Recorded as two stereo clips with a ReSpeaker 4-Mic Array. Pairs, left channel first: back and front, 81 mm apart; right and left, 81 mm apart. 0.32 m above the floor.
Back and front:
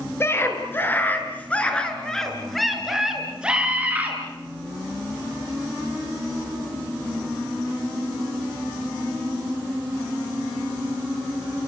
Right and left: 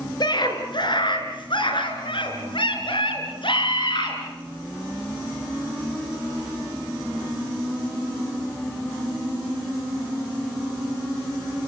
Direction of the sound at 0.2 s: 120° right.